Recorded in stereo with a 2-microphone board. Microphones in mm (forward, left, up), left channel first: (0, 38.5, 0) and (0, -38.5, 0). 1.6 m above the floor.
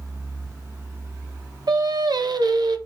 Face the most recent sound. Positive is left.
turn(degrees=-60)  # may be behind; listen again after turning